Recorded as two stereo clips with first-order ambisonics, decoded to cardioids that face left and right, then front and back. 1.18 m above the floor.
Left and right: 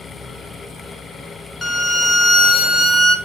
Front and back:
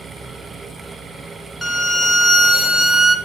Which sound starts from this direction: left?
A violin, at 1.6 s.